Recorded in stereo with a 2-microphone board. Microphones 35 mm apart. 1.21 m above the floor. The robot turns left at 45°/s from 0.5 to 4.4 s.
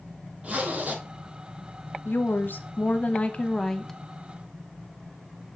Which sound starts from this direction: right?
A zipper, at 0.4 s.